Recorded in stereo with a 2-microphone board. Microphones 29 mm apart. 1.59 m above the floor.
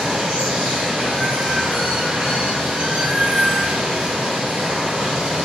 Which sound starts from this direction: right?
Running water, at 0.0 s.